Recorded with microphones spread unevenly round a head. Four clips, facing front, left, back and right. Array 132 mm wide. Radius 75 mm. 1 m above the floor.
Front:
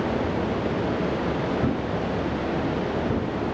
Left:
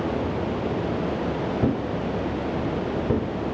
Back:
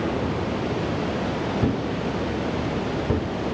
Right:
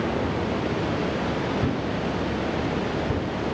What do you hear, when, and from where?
1.6 s a thud: 110° left, 1.1 m